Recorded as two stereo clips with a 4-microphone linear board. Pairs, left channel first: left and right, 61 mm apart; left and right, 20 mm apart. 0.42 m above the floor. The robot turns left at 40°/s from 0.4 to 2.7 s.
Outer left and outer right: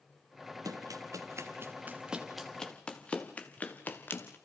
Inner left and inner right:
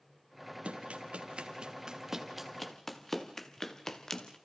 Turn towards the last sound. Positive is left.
turn(degrees=35)  # may be behind; listen again after turning